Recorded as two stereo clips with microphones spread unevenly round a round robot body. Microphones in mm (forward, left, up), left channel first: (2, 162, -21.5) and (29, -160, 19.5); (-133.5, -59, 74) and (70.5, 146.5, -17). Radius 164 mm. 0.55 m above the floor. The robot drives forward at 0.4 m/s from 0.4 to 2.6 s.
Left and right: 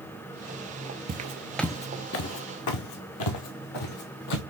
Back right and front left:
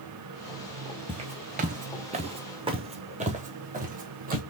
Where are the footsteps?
40° right, 0.6 m; by 4.4 s 110° left, 1.6 m.